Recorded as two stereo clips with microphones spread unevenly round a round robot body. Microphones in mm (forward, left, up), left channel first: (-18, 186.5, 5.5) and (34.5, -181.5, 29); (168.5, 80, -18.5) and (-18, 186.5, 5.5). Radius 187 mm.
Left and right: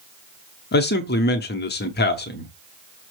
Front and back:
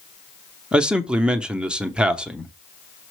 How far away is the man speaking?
About 0.8 m.